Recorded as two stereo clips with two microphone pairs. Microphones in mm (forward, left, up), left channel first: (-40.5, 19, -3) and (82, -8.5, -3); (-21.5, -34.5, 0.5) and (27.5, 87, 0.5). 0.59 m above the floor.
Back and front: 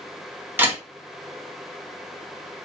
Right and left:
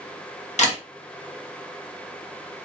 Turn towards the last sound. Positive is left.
turn(degrees=-85)